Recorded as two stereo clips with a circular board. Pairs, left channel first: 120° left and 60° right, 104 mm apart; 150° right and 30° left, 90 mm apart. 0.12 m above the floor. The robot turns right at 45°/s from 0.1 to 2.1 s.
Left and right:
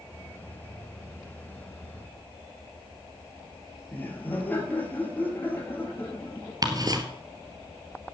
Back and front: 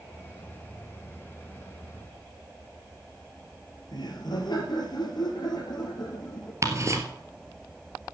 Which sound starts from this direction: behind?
Laughter, at 3.9 s.